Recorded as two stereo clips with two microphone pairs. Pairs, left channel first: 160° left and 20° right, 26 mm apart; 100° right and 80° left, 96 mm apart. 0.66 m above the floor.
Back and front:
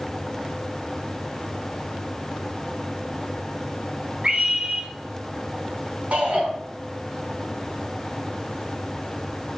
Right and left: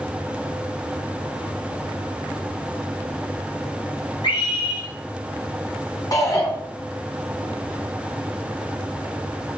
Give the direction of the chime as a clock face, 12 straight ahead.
No chime in this recording.